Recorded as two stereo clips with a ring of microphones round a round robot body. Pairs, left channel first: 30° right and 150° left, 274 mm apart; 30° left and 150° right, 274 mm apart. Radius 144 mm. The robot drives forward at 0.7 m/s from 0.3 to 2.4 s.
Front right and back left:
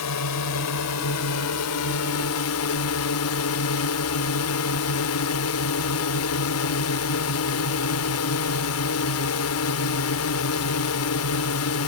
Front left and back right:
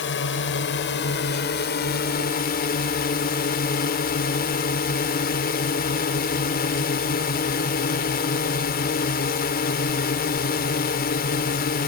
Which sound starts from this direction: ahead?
A drone, at 0.0 s.